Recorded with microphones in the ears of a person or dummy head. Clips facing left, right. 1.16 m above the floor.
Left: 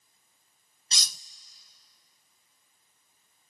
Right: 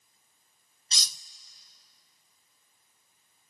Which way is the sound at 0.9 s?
50° left (ahead or behind).